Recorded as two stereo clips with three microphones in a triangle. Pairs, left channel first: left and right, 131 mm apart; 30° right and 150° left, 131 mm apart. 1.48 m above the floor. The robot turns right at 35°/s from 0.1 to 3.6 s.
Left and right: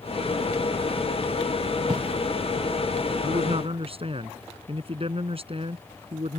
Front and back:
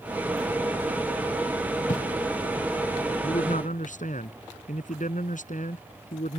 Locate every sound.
1.9 s writing: 35° right; by 2.0 s 30° right
3.2 s a man speaking: 60° right; by 6.4 s 45° right